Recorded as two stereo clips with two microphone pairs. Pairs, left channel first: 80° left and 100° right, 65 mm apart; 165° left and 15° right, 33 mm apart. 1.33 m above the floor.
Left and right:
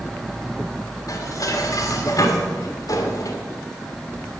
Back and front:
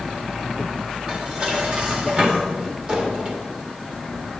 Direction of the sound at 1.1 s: 50° left.